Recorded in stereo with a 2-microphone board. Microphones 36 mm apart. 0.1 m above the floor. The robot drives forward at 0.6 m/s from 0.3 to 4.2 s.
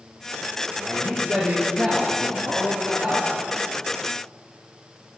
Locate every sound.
0.8 s a man speaking: 35° right (ahead or behind), 2.0 m; by 3.3 s 40° right (ahead or behind), 1.8 m